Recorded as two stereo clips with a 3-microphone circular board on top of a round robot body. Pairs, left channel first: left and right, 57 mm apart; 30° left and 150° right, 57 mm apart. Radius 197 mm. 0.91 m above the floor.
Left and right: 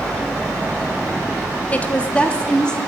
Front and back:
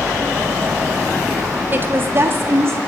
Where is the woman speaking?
155° left, 2 m; by 2.8 s 165° left, 3 m.